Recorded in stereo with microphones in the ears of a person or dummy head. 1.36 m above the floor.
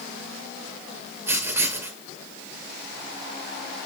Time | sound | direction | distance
1.3 | writing | 10° right (ahead or behind) | 5 m